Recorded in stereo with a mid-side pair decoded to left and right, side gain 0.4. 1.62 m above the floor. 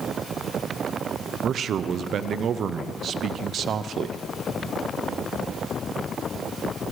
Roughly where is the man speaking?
Ahead right.